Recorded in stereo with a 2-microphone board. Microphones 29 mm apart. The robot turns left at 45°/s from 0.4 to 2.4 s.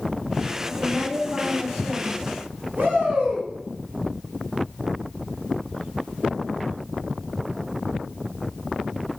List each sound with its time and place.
0.7 s a woman speaking: 35° left, 3 m; by 2.2 s 35° right, 3 m
2.8 s a shout: 80° right, 2.5 m